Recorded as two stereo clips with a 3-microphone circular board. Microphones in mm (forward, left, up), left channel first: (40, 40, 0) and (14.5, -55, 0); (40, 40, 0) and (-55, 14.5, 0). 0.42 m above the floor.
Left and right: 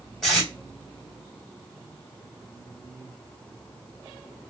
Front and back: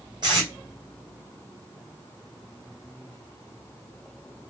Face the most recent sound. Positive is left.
turn(degrees=160)